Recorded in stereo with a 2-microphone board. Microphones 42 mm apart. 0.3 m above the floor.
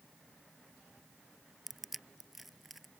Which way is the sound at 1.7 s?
Centre (ahead or behind).